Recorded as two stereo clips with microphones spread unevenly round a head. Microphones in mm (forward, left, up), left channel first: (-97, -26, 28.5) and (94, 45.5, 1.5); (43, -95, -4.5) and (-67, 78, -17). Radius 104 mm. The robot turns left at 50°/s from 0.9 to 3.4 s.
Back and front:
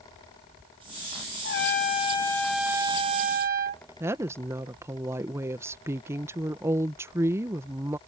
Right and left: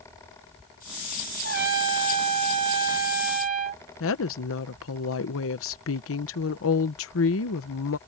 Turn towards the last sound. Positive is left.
turn(degrees=-60)